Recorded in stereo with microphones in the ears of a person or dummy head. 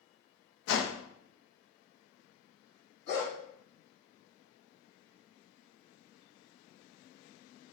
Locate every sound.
0.7 s a whoosh: 70° left (ahead or behind), 0.6 m
3.1 s a dog barking: 60° left (ahead or behind), 2 m